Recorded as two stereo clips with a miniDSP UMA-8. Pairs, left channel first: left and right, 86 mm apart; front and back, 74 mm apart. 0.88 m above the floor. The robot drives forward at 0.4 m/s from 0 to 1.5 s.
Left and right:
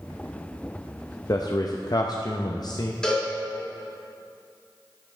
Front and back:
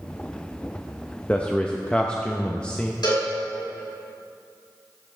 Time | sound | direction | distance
1.3 | a man speaking | 65° left | 0.6 m
3.0 | a cowbell | 10° left | 3 m